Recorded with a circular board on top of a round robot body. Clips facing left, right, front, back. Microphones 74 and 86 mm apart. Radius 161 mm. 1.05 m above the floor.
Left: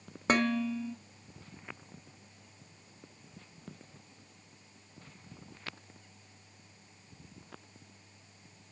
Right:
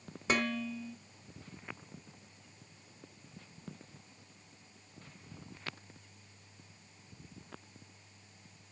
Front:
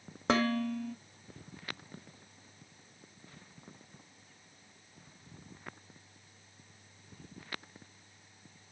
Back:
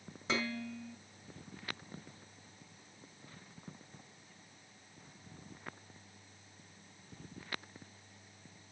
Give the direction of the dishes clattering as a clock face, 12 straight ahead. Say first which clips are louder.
Left 5 dB, front 8 dB; 11 o'clock.